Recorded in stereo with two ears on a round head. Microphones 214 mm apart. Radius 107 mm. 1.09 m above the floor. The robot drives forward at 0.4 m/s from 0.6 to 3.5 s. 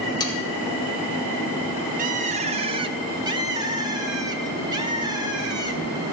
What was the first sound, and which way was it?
Sawing, 15° left (ahead or behind).